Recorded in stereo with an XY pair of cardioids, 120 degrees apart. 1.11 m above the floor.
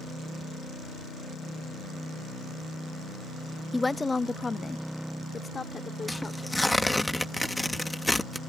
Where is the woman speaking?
10° left; by 7.1 s 30° left.